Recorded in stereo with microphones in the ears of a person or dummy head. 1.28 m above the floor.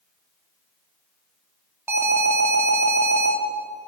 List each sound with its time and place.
1.9 s an alarm: 5° right (ahead or behind), 3 m